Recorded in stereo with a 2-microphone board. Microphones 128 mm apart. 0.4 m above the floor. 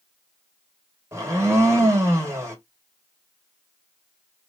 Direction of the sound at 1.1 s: 20° right (ahead or behind).